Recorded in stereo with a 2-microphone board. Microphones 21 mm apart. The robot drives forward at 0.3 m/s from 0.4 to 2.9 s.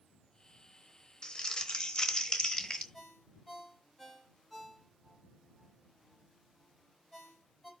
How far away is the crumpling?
About 1.0 m.